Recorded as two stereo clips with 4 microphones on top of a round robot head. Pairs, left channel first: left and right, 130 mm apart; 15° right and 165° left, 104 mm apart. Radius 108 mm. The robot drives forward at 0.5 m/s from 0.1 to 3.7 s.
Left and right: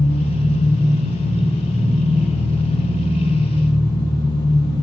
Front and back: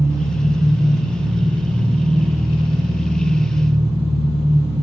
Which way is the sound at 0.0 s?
100° left.